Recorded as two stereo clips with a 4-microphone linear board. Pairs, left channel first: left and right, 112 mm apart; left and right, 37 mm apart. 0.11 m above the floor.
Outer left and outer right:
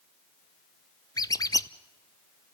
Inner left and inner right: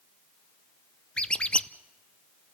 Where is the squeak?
35° left (ahead or behind), 0.5 m.